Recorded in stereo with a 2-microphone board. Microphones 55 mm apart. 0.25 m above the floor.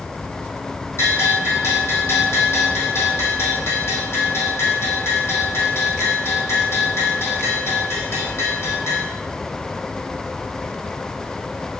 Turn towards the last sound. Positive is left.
turn(degrees=50)  # may be behind; listen again after turning